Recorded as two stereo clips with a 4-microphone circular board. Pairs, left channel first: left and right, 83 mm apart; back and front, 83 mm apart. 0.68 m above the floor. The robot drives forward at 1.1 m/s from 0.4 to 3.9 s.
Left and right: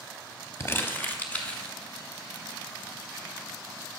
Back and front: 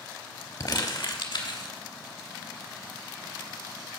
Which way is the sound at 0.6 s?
145° left.